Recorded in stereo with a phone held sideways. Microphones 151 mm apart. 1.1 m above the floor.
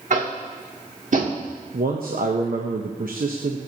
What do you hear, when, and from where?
0.1 s tapping: 60° right (ahead or behind), 1.5 m
1.7 s a man speaking: 80° right, 0.9 m